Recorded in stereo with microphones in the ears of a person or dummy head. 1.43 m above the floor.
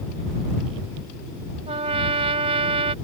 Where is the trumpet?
30° right (ahead or behind).